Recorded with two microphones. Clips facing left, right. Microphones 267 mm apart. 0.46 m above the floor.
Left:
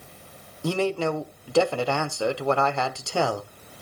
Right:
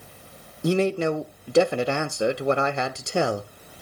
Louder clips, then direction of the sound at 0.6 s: Right 3 dB; 20° right (ahead or behind).